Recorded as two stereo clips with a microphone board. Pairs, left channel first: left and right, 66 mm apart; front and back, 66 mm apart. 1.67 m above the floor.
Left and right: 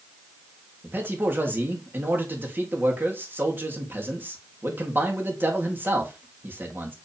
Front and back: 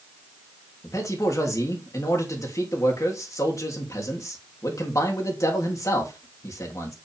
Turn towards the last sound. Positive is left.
turn(degrees=-35)